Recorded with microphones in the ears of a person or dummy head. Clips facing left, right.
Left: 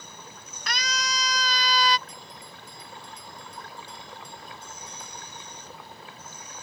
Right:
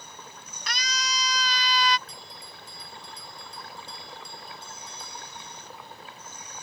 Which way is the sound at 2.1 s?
25° right (ahead or behind).